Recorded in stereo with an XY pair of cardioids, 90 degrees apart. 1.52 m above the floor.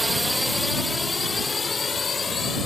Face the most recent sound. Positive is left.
turn(degrees=45)